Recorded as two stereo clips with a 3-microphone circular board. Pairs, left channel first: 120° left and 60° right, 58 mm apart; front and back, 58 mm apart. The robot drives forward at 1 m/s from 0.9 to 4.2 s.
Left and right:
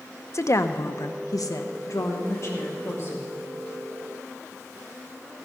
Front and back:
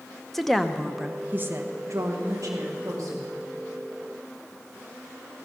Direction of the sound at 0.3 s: 85° left.